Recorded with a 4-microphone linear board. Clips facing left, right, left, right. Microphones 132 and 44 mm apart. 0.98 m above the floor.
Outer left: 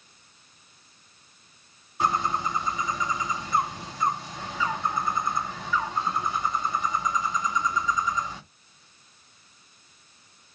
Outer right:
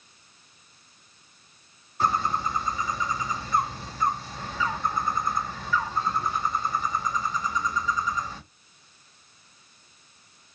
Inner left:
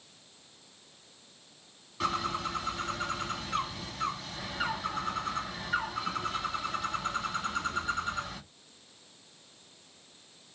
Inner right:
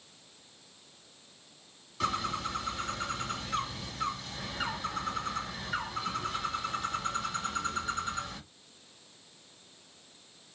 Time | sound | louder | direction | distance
2.0 | a bird | even, inner left 1 dB | 10° left (ahead or behind) | 2.5 m